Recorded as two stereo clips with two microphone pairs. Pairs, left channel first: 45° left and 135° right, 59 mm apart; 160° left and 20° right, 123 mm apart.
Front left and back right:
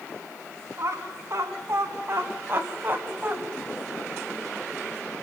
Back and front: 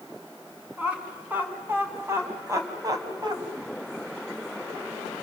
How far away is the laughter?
About 5 m.